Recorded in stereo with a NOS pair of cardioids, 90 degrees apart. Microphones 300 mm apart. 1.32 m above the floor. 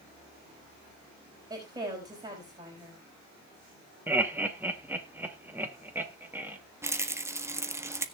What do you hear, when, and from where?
1.5 s a woman speaking: 15° right, 5 m
4.1 s laughter: 5° right, 2.5 m
6.8 s a rattle: 10° right, 1.3 m